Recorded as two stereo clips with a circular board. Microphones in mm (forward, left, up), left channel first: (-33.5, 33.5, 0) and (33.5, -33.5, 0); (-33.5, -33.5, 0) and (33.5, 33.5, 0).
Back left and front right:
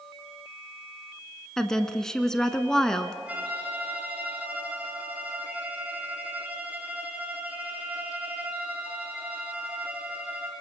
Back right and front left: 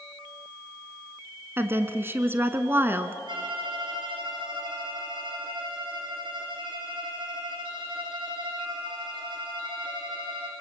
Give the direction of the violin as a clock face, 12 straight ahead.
11 o'clock.